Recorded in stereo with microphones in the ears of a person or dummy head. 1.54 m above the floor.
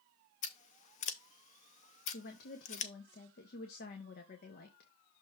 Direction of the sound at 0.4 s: 45° left (ahead or behind).